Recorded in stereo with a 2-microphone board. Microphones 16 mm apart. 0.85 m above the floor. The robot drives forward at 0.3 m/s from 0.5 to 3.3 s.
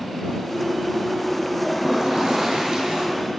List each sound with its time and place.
1.6 s a toilet flushing: 45° right (ahead or behind), 8.5 m